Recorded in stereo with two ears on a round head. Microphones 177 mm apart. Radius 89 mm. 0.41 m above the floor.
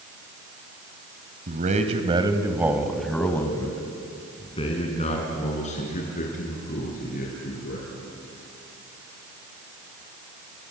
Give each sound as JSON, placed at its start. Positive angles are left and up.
{"t": 1.5, "sound": "a man speaking", "side_deg": -45, "distance_m": 2.5}